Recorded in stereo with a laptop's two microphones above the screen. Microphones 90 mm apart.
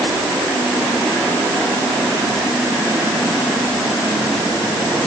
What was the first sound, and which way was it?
Only background noise.